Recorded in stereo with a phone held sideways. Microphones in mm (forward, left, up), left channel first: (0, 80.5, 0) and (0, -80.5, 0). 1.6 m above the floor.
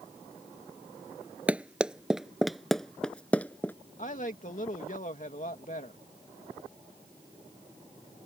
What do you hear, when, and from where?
1.5 s running footsteps: 10° right (ahead or behind); by 3.7 s 10° left (ahead or behind)
4.0 s a woman speaking: 50° left (ahead or behind)